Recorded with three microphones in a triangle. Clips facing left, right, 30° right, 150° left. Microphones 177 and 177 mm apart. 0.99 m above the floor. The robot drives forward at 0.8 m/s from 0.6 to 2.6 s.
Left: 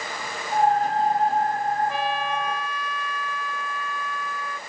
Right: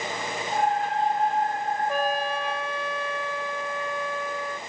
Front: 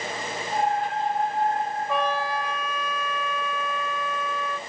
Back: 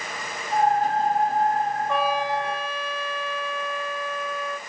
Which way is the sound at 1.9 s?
115° right.